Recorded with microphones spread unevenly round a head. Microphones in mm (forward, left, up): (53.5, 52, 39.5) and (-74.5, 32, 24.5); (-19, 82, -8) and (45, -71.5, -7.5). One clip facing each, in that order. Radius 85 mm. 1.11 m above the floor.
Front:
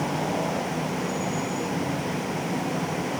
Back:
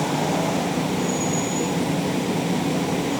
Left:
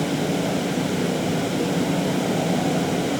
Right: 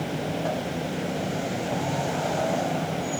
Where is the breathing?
No breathing in this recording.